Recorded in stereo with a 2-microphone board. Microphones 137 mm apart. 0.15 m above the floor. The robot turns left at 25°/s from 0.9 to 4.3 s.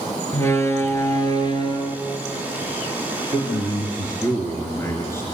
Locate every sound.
0.3 s a door slam: 20° left (ahead or behind), 2.0 m; by 2.0 s 40° left (ahead or behind), 2.0 m
3.3 s a man speaking: 35° left (ahead or behind), 2.5 m; by 5.3 s 20° left (ahead or behind), 2.5 m